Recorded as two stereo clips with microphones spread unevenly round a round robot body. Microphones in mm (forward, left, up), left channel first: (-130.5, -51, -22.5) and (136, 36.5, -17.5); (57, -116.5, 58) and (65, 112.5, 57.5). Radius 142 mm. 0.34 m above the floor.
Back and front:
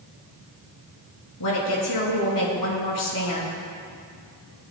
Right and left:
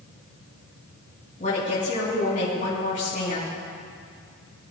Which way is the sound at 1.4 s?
150° right.